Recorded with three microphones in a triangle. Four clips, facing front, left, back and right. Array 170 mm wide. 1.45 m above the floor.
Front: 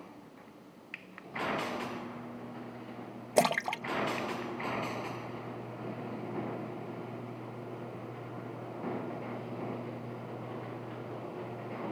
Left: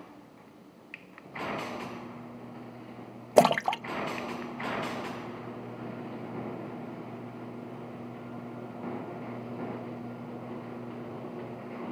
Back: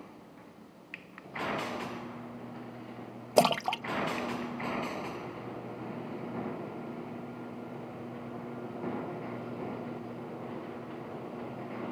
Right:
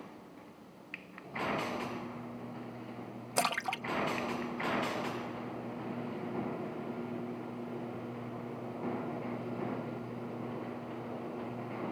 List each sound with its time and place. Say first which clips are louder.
3.4 s a splash: left 12 dB, back 3 dB; 105° left